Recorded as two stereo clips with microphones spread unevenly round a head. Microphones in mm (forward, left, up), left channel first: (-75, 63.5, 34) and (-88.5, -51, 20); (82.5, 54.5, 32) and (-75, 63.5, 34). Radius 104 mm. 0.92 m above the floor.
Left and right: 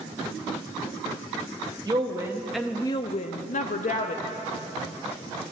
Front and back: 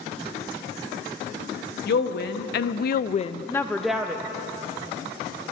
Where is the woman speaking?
30° right, 1.0 m; by 4.2 s 95° left, 1.0 m.